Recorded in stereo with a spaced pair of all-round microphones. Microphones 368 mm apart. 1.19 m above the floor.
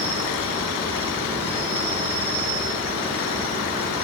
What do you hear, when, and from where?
0.0 s an insect: 15° right (ahead or behind), 6 m